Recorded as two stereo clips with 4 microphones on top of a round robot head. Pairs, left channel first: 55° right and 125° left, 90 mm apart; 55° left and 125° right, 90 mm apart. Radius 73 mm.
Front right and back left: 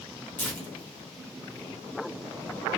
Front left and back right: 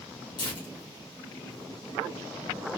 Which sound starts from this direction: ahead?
Tearing paper, at 0.4 s.